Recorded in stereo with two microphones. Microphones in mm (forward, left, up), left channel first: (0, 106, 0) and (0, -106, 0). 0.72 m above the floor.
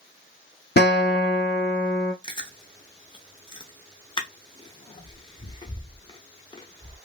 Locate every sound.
0.8 s a guitar: 50° left (ahead or behind), 0.6 m
2.2 s chewing: 20° left (ahead or behind), 0.6 m